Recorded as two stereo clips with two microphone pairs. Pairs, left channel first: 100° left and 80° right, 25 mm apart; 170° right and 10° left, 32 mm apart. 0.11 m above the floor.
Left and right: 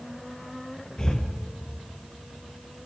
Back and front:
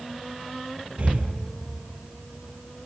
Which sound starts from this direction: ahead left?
Breathing, at 1.0 s.